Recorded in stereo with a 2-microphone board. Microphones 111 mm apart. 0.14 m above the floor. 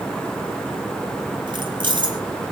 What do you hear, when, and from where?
1.5 s keys jangling: 45° right (ahead or behind), 2.5 m